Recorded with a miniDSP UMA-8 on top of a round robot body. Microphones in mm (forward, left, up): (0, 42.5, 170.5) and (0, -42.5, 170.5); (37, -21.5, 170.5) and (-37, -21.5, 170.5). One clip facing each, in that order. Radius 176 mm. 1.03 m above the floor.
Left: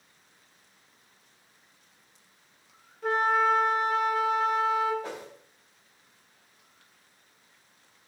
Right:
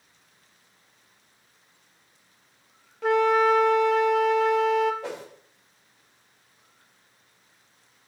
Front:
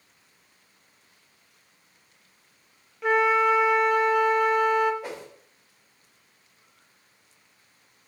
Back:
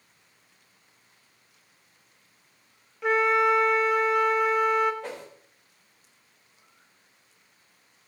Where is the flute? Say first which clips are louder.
Right 4 dB, front 1 dB; 90° right, 1.0 m.